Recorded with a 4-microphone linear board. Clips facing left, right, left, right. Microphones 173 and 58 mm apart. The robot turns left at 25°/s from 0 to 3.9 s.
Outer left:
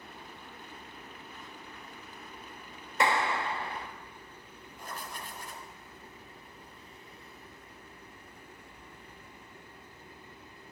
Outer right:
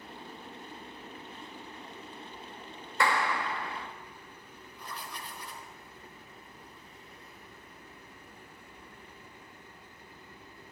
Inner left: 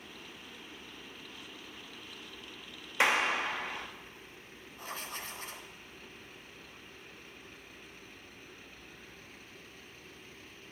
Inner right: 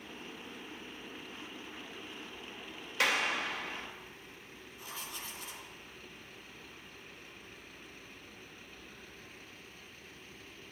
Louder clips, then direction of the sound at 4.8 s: Outer left 1 dB, inner left 4 dB; 45° left (ahead or behind).